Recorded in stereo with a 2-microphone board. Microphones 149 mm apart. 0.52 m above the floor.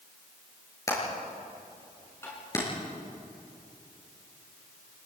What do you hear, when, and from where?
0.9 s hammering: 20° left (ahead or behind), 7 m
2.2 s tapping: 15° left (ahead or behind), 7 m